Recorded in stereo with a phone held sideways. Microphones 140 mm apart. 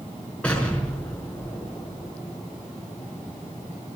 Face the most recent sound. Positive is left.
turn(degrees=10)  # may be behind; listen again after turning